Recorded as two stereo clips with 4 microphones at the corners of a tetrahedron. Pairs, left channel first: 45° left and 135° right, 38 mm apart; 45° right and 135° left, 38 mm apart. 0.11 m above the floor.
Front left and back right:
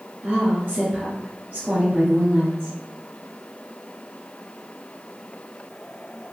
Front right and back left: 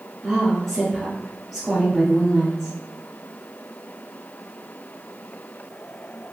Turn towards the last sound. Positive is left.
turn(degrees=-125)